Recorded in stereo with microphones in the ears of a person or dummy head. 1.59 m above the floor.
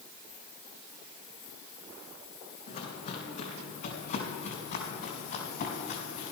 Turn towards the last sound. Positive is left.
turn(degrees=60)  # may be behind; listen again after turning